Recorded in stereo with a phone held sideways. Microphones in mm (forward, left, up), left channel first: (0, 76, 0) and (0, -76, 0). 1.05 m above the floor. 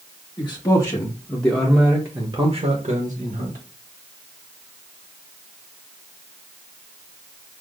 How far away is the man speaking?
About 1.4 m.